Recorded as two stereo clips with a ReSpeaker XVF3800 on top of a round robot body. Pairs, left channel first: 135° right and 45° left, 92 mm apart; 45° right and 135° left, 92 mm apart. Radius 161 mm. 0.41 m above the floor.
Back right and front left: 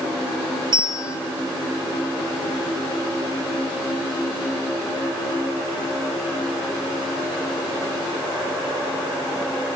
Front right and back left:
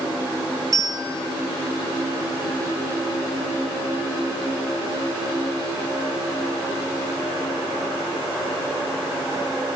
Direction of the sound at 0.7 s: 85° left.